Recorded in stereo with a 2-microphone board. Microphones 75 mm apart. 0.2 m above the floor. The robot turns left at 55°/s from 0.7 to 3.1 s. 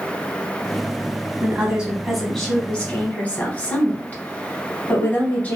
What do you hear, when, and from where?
1.4 s a woman speaking: 140° right, 1.1 m; by 5.6 s 130° left, 1.1 m